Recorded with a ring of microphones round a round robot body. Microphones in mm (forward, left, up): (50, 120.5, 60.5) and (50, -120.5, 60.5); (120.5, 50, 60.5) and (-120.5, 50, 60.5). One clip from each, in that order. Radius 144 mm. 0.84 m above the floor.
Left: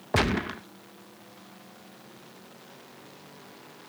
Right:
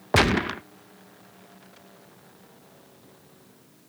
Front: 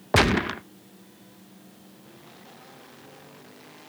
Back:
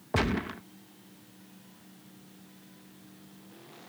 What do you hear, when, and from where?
0.1 s a gunshot: 35° right